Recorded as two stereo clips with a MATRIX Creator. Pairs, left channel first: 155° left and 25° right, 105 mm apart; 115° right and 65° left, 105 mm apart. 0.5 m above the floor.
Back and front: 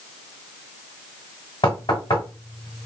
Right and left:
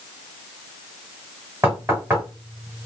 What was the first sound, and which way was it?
Knocking, 135° left.